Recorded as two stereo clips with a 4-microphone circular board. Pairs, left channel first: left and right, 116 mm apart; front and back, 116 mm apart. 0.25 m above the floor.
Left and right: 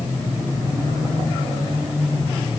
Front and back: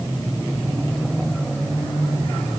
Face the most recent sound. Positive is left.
No sound to turn to.